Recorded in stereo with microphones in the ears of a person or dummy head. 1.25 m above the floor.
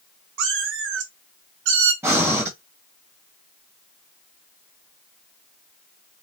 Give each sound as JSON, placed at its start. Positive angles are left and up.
{"t": 0.4, "sound": "a cat meowing", "side_deg": -75, "distance_m": 2.0}
{"t": 2.0, "sound": "breathing", "side_deg": -10, "distance_m": 1.5}